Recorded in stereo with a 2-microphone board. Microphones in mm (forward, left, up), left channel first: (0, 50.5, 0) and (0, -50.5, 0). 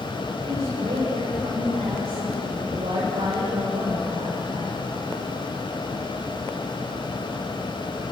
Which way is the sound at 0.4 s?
85° right.